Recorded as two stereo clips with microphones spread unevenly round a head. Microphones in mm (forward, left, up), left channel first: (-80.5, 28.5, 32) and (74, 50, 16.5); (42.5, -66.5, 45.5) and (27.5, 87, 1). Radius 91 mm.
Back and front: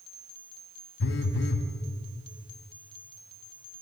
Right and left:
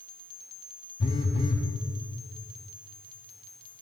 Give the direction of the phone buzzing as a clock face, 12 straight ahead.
5 o'clock.